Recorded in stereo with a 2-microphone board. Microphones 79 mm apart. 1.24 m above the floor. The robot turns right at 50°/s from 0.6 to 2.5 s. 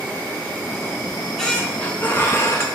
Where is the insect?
15° left, 1.1 m; by 2.8 s 110° left, 1.1 m.